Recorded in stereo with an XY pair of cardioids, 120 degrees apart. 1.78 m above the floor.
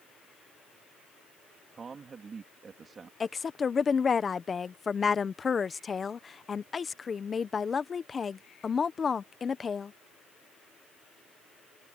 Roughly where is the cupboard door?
I don't hear a cupboard door.